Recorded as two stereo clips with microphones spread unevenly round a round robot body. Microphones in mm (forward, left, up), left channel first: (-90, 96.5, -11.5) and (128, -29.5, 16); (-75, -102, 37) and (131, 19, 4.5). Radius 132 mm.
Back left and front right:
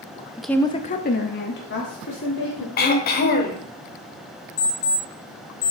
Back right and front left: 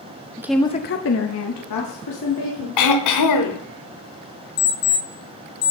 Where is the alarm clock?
145° right, 1.5 m.